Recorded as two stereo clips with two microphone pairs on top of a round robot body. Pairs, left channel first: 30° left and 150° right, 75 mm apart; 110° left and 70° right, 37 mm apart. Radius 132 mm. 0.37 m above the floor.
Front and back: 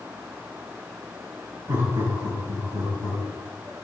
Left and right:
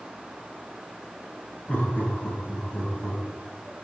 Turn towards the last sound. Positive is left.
turn(degrees=-175)